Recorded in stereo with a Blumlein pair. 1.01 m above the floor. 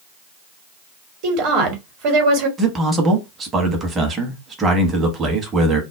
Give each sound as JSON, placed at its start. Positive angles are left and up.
{"t": 1.2, "sound": "a woman speaking", "azimuth_deg": -40, "distance_m": 1.2}
{"t": 2.6, "sound": "a man speaking", "azimuth_deg": -20, "distance_m": 1.0}